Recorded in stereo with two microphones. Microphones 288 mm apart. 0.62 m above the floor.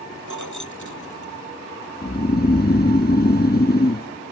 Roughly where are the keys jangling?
Left.